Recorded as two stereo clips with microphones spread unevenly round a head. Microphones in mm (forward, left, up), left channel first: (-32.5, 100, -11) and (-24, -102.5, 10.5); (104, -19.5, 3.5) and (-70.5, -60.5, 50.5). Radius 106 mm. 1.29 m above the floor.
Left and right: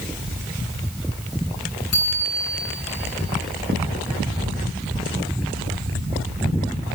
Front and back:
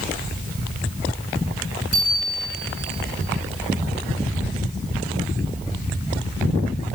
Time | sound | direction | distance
1.9 | a bicycle bell | 70° left | 9.5 m